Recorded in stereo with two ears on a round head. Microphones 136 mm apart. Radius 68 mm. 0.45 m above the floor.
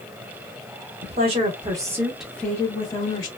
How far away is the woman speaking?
About 1.1 m.